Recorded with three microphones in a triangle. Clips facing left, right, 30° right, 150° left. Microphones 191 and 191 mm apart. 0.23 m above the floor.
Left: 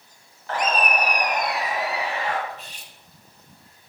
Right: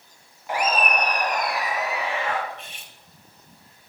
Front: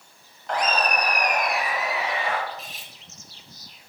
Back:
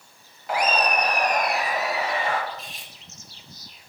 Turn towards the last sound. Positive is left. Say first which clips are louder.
# even, even
turn(degrees=55)